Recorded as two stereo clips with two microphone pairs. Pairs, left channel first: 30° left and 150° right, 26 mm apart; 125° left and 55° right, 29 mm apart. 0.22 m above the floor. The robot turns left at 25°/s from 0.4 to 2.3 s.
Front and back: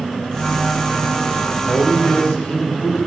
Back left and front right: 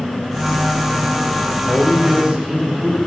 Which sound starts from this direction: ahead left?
A man speaking, at 1.7 s.